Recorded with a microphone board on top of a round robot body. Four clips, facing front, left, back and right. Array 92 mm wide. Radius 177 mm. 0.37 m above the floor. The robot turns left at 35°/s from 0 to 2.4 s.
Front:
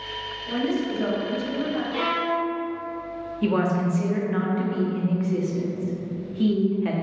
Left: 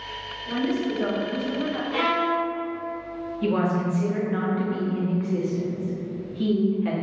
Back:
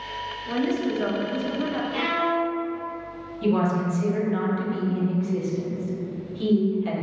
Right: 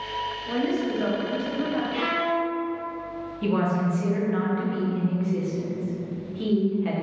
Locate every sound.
0.5 s a woman speaking: 145° right, 1.0 m; by 1.8 s 170° left, 1.0 m
1.9 s a violin: 95° left, 0.6 m; by 2.5 s 80° left, 0.6 m
3.4 s a woman speaking: 5° left, 1.0 m